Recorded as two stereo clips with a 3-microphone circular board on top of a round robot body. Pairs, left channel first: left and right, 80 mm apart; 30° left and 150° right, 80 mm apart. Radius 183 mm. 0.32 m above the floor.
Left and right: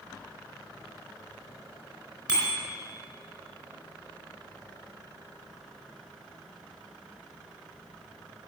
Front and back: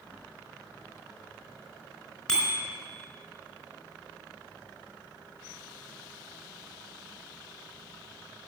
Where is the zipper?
No zipper in this recording.